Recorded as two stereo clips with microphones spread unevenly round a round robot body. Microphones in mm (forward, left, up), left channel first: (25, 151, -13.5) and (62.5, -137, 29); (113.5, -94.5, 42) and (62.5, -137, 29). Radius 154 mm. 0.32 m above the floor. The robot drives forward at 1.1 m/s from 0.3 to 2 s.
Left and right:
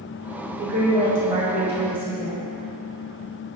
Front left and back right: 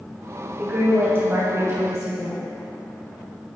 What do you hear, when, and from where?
0.6 s a woman speaking: 115° right, 1.6 m; by 2.4 s 160° right, 2.5 m